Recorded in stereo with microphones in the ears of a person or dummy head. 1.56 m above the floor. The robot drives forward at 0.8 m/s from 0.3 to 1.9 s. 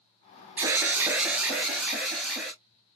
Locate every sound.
0.6 s an alarm: 15° right (ahead or behind), 0.7 m; by 2.5 s 10° right (ahead or behind), 1.4 m